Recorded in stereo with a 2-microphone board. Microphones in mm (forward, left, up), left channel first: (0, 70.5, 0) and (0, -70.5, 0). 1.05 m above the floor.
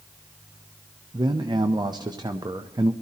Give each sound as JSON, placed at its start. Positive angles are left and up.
{"t": 1.1, "sound": "a man speaking", "side_deg": -30, "distance_m": 0.5}